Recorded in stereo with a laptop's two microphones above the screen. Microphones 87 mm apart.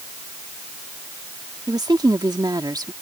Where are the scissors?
I don't hear scissors.